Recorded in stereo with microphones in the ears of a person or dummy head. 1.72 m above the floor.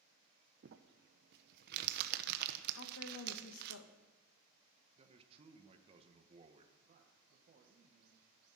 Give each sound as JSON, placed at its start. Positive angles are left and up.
{"t": 0.6, "sound": "crumpling", "side_deg": -60, "distance_m": 1.1}
{"t": 2.8, "sound": "a woman speaking", "side_deg": 75, "distance_m": 2.0}
{"t": 5.0, "sound": "a man speaking", "side_deg": -35, "distance_m": 2.0}
{"t": 6.8, "sound": "a man speaking", "side_deg": -40, "distance_m": 1.9}